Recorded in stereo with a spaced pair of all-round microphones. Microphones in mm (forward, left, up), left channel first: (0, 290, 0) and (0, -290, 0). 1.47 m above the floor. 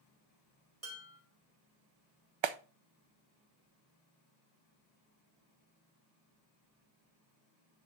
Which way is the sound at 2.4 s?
50° right (ahead or behind).